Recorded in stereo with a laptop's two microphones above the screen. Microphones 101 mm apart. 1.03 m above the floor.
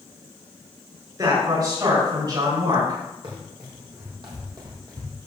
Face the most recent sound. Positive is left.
turn(degrees=-35)  # may be behind; listen again after turning